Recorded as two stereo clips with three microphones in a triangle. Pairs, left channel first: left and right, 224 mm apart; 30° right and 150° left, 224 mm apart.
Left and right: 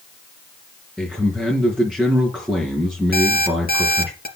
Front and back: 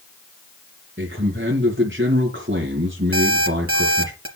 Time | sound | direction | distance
1.0 | a man speaking | 175° right | 3.5 m
3.1 | an alarm clock | 135° left | 3 m